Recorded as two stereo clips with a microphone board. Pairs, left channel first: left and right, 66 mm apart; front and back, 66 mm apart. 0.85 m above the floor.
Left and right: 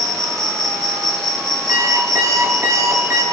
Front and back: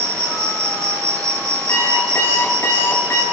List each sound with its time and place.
0.0 s an insect: 175° left, 3.5 m
1.7 s an alarm clock: 50° right, 8 m